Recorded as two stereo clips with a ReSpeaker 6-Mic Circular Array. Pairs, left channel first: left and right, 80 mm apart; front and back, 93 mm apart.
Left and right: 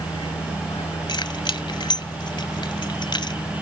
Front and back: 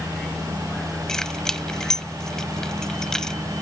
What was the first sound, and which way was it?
A vehicle, 85° left.